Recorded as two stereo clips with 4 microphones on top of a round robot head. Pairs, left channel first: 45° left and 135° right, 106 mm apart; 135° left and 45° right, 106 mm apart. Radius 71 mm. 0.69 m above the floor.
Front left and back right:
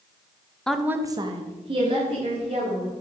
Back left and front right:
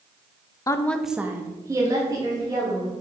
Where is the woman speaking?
125° left, 0.6 m; by 2.9 s 100° right, 2.5 m.